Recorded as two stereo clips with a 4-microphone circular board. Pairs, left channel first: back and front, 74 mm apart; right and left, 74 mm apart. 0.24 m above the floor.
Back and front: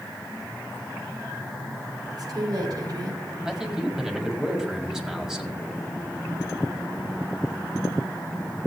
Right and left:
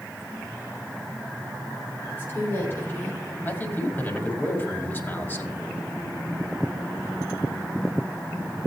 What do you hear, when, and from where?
2.1 s a woman speaking: 30° right, 6 m
3.5 s a man speaking: 75° right, 1.7 m